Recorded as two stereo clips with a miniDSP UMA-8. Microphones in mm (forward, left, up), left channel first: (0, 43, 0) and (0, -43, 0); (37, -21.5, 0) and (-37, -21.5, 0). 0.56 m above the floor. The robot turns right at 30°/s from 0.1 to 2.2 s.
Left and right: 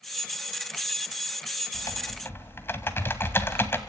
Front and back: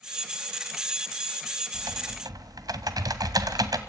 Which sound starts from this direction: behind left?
Typing on a keyboard, at 1.7 s.